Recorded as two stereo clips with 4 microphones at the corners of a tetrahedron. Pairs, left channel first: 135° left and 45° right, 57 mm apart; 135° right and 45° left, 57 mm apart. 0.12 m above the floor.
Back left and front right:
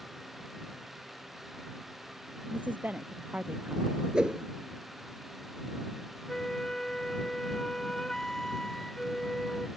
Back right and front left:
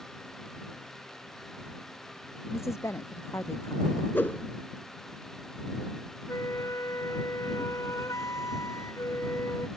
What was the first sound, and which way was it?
A woman speaking, 105° right.